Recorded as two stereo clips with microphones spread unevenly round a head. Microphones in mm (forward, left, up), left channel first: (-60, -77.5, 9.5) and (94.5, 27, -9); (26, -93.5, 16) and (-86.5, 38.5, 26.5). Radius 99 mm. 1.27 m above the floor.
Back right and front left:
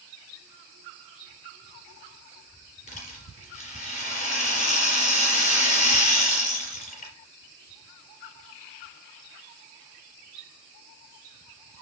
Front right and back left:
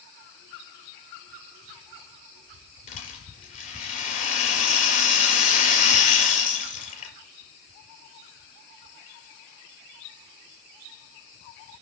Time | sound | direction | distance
2.9 | a rattle | 95° right | 5 m